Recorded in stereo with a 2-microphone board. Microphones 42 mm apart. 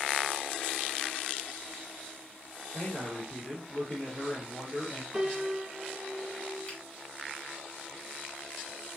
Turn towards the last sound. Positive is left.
turn(degrees=30)  # may be behind; listen again after turning